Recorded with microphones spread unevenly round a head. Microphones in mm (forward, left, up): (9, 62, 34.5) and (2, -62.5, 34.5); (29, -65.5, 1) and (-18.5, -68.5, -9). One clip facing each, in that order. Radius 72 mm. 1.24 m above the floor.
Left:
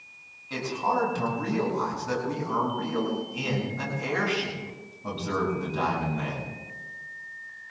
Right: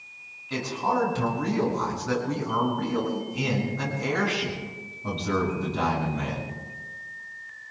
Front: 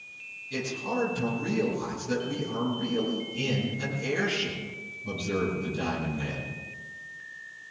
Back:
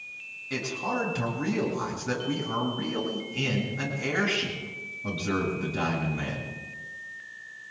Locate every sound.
0.5 s a man speaking: 170° left, 8 m